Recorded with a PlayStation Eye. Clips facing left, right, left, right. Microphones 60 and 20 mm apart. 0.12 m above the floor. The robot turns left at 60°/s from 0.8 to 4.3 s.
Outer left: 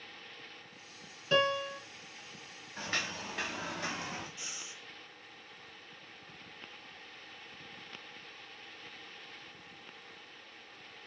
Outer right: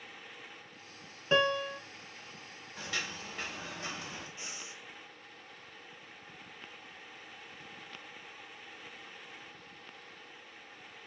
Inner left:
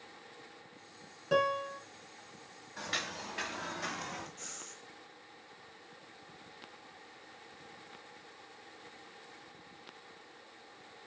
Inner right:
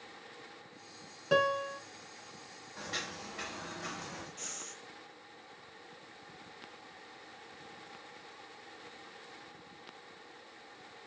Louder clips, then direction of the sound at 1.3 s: Outer right 1 dB, inner right 1 dB; 25° right (ahead or behind).